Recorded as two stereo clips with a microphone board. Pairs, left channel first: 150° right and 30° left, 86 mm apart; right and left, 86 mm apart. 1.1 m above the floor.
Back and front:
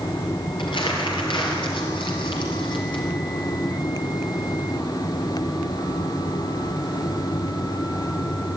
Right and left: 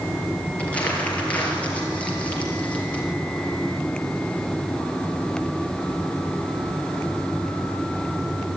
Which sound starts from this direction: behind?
Crumpling, at 0.6 s.